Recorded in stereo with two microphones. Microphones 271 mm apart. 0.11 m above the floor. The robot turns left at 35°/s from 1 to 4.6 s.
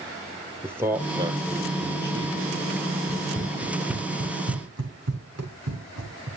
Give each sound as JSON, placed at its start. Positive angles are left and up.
{"t": 0.6, "sound": "a man speaking", "side_deg": -10, "distance_m": 3.5}
{"t": 3.1, "sound": "running footsteps", "side_deg": 10, "distance_m": 3.5}